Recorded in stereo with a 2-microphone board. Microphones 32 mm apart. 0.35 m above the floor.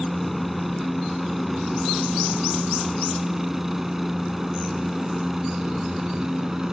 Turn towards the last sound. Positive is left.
turn(degrees=-20)  # may be behind; listen again after turning